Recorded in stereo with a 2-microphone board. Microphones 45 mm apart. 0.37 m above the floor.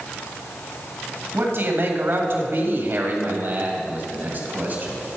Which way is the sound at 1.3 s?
55° right (ahead or behind).